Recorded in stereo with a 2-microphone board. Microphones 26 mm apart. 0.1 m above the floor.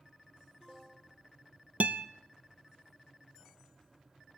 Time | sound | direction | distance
1.8 | a guitar | 60° right (ahead or behind) | 0.6 m